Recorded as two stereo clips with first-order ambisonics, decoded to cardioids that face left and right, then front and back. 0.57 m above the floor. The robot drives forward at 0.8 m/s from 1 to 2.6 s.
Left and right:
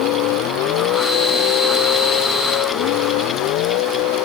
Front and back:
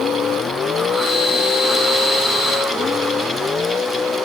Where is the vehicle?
65° left; by 4.3 s 70° left.